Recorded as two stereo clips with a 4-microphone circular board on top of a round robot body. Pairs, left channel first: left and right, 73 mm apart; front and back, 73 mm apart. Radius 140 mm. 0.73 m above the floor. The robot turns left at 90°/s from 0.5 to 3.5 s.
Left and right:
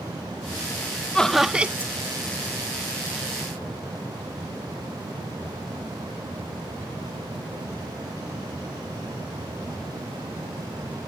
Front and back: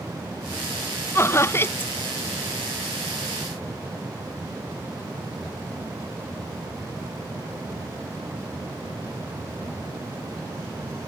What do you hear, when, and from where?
1.1 s laughter: 20° left; by 1.9 s 50° right